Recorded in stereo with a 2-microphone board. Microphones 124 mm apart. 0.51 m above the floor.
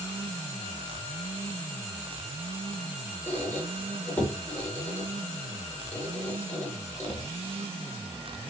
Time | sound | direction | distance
3.3 | a squeak | 15° left (ahead or behind) | 1.1 m